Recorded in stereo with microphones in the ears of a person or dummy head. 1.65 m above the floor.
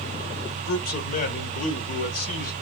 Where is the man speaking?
50° left (ahead or behind), 0.9 m.